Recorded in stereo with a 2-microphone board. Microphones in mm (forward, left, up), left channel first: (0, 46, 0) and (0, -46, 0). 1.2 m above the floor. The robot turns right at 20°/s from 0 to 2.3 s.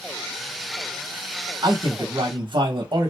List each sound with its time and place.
1.6 s a man speaking: 50° right (ahead or behind), 1.0 m; by 3.1 s 60° right (ahead or behind), 1.0 m